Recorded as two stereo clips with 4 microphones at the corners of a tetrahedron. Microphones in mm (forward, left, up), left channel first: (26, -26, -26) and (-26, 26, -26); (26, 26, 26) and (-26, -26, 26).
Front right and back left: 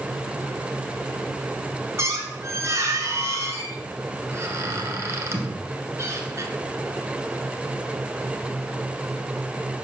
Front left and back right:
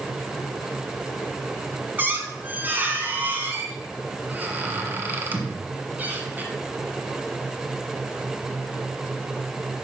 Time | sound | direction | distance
2.0 | a squeak | 170° left | 1.4 m